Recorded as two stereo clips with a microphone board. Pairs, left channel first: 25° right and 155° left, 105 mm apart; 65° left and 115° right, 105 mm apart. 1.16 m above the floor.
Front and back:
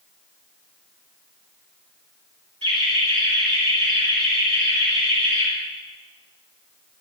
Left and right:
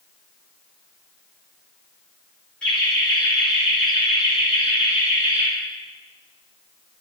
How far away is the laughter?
About 3 m.